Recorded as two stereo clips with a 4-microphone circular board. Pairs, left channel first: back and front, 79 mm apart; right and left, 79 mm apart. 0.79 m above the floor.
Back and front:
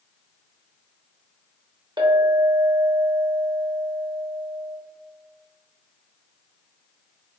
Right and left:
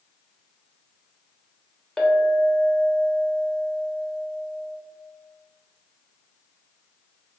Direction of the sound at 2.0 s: 5° right.